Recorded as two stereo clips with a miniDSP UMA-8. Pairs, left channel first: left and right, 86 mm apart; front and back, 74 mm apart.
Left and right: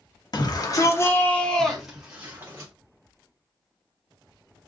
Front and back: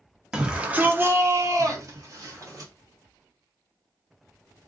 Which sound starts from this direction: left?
A shout, at 0.3 s.